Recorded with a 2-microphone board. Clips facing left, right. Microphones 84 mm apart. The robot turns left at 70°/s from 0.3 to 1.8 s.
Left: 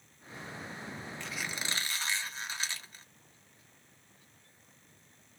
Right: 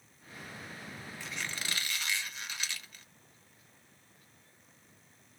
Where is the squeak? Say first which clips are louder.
Even; 170° right, 0.7 m; by 3.0 s 145° left, 0.7 m.